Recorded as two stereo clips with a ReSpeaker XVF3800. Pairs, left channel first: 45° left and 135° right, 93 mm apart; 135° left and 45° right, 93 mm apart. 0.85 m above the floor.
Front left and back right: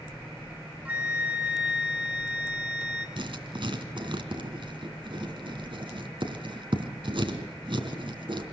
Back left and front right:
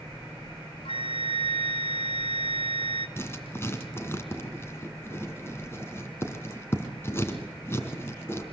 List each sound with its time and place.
0.8 s a flute: 150° left, 4.5 m
3.2 s writing: 160° right, 3 m